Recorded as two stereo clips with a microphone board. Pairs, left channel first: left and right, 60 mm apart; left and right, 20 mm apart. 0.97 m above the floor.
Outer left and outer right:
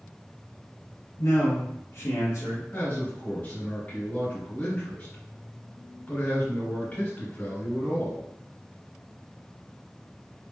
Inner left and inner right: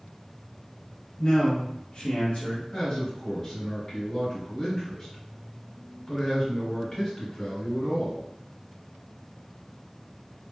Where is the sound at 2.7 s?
30° left (ahead or behind), 1.8 m.